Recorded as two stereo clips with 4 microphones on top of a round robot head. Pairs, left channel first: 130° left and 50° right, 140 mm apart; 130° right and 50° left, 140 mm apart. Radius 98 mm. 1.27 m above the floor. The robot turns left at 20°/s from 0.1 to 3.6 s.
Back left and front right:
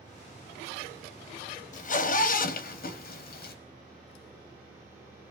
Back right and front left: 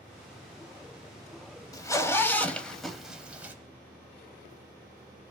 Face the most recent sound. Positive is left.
turn(degrees=125)